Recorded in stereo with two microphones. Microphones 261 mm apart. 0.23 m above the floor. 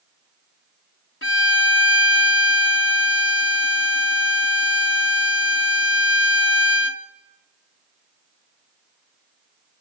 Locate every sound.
1.2 s a violin: 50° left (ahead or behind), 0.8 m